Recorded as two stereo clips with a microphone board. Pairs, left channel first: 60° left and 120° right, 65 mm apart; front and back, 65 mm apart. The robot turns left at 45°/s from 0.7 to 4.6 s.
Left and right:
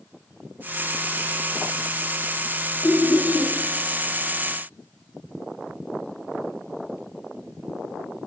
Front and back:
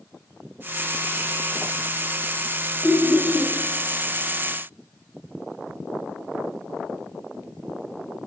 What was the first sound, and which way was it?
Laughter, 60° left.